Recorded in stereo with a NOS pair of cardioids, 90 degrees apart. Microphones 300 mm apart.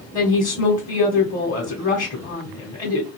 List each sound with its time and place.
0.1 s a woman speaking: 25° left, 0.9 m